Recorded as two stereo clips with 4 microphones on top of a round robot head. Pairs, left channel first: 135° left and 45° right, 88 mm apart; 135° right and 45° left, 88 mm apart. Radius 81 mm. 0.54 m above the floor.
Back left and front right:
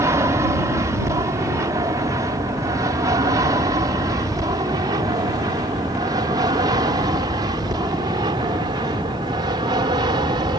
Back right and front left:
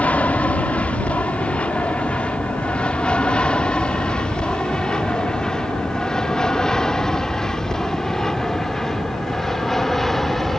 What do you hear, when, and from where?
0.0 s an aircraft: 70° right; by 10.6 s 45° right